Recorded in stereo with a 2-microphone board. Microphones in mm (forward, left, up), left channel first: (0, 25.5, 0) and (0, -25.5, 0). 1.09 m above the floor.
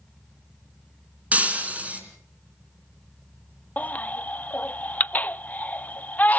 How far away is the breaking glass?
About 3 m.